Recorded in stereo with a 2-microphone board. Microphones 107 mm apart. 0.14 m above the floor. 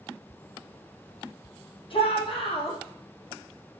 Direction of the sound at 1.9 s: 55° left (ahead or behind).